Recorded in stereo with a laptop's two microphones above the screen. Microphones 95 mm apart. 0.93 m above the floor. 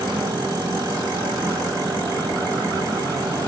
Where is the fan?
40° right (ahead or behind), 1.4 m.